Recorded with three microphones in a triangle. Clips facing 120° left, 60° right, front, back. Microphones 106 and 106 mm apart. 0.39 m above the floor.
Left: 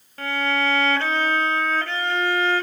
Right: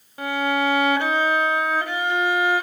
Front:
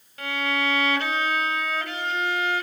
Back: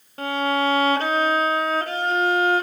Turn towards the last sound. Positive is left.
turn(degrees=-135)